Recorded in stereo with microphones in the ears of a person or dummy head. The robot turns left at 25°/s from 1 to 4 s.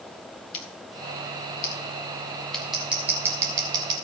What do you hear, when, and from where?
0.5 s scissors: 35° left (ahead or behind), 1.6 m; by 4.0 s 30° right (ahead or behind), 1.6 m